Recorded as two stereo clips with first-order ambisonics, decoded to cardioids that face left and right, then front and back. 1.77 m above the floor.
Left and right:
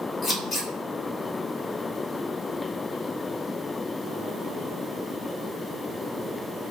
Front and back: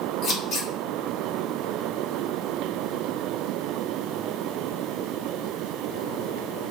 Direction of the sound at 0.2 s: 15° left.